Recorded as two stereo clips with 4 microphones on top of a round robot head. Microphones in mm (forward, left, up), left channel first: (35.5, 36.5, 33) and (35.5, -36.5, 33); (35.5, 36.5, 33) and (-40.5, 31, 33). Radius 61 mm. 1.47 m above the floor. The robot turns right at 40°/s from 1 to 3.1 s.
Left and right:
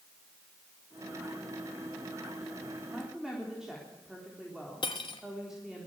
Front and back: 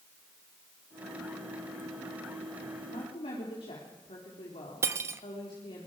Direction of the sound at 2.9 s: 15° right.